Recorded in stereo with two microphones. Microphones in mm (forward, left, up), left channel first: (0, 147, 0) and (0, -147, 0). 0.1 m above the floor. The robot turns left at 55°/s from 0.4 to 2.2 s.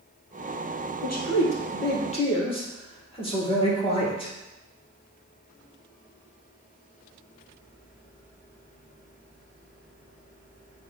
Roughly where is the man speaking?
Left.